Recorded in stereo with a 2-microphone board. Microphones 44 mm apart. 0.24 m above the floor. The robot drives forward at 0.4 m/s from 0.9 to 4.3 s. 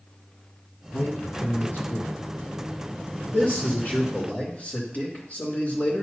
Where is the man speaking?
50° left (ahead or behind), 1.9 m; by 6.0 s 35° left (ahead or behind), 2.5 m.